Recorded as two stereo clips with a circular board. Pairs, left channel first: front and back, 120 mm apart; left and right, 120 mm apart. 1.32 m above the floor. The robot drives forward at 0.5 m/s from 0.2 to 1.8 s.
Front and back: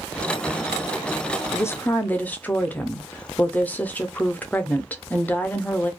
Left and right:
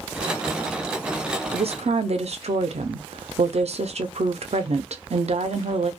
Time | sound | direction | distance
1.5 | a woman speaking | 60° right | 0.5 m